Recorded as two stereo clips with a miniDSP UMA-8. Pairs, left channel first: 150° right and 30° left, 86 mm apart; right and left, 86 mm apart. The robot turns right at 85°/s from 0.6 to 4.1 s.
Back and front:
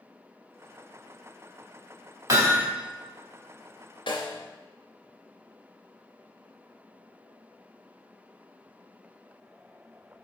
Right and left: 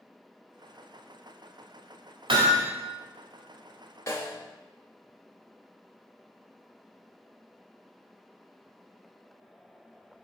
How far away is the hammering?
About 1.8 m.